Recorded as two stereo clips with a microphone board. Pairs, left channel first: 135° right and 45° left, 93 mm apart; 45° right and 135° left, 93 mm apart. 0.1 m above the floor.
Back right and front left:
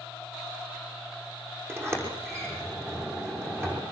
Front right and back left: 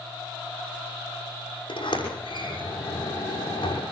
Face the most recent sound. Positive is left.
turn(degrees=-15)